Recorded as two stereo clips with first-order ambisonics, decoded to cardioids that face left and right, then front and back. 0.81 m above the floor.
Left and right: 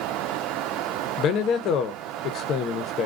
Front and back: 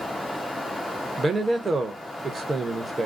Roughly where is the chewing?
No chewing in this recording.